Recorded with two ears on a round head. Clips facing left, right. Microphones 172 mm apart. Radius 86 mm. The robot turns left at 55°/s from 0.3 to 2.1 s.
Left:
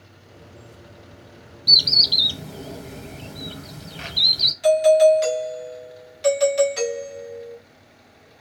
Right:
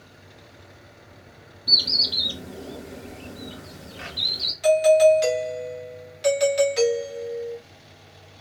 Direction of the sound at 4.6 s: Centre (ahead or behind).